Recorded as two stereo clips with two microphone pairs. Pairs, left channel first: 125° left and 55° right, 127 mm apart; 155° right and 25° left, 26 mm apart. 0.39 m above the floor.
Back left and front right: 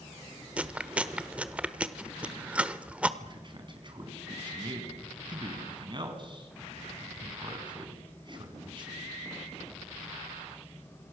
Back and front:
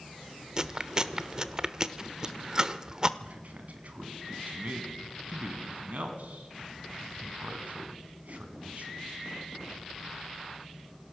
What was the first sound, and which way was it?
Chewing, 15° left.